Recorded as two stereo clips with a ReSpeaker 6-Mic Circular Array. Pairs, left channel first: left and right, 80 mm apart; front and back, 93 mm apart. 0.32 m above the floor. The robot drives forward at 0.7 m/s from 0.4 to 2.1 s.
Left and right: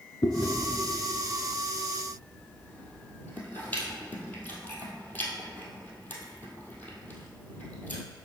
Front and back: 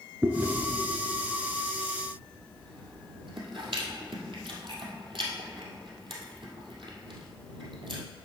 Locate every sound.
0.2 s chewing: 115° left, 0.7 m; by 8.0 s 160° left, 1.6 m